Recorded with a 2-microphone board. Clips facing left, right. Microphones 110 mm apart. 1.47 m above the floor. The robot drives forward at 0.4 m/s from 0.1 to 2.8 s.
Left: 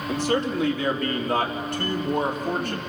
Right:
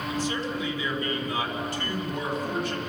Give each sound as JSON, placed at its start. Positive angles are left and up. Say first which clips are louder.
{"t": 0.1, "sound": "a man speaking", "louder": "left 7 dB", "side_deg": 75, "distance_m": 3.0}